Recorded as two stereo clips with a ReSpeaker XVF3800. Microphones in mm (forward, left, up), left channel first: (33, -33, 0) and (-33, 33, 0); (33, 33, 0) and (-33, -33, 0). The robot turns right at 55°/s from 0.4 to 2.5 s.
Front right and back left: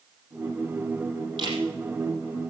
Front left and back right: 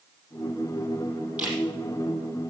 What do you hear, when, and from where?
1.4 s a camera shutter: 150° left, 4.5 m; by 1.6 s 160° left, 4.5 m